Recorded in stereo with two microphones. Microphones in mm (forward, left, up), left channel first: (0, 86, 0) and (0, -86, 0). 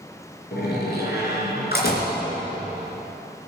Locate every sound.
0.5 s a door slam: 65° left (ahead or behind), 3.5 m